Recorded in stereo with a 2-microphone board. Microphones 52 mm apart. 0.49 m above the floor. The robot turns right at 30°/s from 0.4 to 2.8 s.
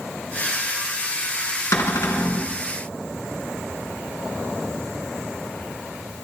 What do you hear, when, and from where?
1.7 s a cupboard door: 70° left (ahead or behind), 3.5 m; by 2.5 s 50° left (ahead or behind), 3.5 m